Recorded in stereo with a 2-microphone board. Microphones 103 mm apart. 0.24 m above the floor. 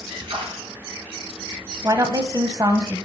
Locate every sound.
0.1 s a splash: 60° right (ahead or behind), 3 m
1.8 s a woman speaking: 35° right (ahead or behind), 1.1 m